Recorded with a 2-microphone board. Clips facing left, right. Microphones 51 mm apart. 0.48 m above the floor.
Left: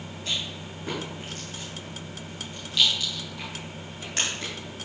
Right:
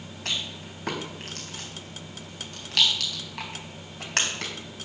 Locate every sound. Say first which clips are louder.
0.2 s a rattle: even; 70° right (ahead or behind), 3.5 m